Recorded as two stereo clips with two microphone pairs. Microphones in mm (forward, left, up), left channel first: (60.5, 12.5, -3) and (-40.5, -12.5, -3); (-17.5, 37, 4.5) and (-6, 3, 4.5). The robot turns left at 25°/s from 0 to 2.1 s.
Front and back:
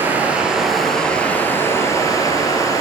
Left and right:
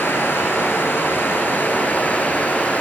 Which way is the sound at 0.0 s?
120° left.